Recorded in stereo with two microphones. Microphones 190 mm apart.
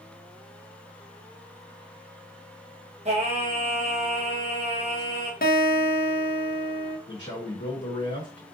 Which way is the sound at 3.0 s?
40° right (ahead or behind).